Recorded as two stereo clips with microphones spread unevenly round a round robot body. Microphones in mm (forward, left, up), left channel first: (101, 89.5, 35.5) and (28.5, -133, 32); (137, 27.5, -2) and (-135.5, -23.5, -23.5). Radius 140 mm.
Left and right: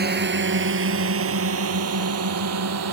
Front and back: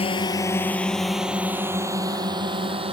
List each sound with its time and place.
0.0 s a drone: 60° right; by 2.9 s 100° right